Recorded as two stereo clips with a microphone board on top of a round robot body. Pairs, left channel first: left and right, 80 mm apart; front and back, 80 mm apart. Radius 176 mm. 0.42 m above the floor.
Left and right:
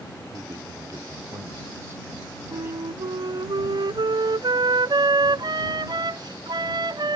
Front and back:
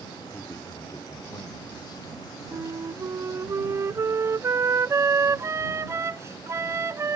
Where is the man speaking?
55° right; by 2.9 s 30° right.